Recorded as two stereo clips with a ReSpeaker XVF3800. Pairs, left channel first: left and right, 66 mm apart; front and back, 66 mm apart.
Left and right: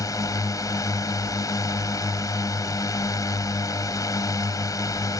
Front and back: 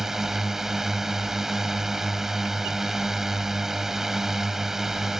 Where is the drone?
100° left.